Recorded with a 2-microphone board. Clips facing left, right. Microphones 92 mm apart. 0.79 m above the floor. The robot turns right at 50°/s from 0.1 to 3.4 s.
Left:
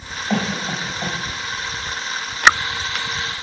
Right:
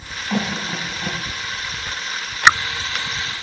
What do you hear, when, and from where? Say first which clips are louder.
0.3 s a cough: left 1 dB; 75° left (ahead or behind), 3.5 m; by 1.2 s 60° left (ahead or behind), 3.5 m